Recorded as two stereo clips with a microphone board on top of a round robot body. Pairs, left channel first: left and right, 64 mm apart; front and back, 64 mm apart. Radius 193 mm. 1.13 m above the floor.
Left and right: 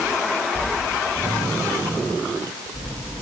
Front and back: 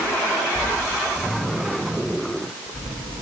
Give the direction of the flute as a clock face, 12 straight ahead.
No flute in this recording.